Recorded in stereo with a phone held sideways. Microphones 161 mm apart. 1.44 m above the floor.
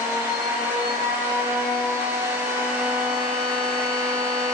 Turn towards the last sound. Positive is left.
turn(degrees=-15)  # may be behind; listen again after turning